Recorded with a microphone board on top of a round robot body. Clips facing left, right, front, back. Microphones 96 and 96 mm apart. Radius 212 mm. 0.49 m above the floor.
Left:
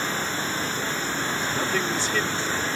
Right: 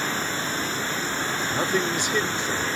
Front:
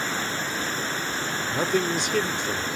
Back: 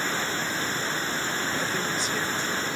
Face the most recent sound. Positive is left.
turn(degrees=-15)